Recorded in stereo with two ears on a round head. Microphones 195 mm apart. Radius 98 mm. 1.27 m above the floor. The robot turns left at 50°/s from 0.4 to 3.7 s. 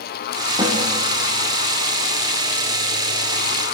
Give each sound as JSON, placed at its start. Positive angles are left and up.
{"t": 0.6, "sound": "a snare drum", "side_deg": -20, "distance_m": 1.8}